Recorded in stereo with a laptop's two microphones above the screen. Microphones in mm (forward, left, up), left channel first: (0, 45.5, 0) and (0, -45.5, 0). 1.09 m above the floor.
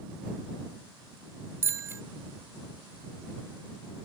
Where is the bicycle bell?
25° right (ahead or behind).